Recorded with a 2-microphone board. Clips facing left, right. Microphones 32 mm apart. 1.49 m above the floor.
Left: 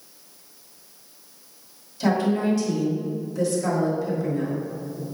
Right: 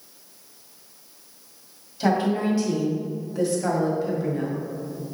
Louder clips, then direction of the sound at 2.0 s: Even; 20° right (ahead or behind).